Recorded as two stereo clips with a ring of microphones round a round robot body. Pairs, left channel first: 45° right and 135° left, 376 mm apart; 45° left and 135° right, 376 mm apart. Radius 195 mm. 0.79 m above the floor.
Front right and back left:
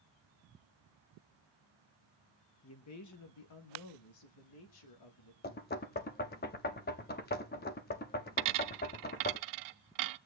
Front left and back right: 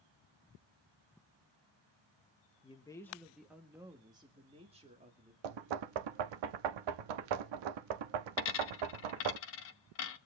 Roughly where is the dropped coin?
Left.